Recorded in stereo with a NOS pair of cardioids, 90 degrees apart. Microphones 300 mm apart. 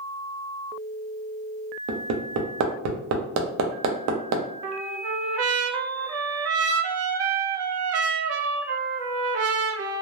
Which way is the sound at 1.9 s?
65° right.